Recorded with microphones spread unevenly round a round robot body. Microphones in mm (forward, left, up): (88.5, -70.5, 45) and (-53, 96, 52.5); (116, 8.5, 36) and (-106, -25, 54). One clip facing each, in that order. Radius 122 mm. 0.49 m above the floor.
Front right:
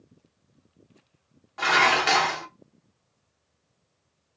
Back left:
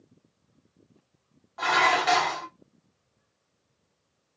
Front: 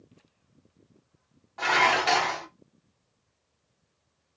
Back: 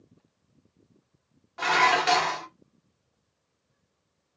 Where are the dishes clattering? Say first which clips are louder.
Front right 1 dB, back 1 dB; 100° right, 0.9 m.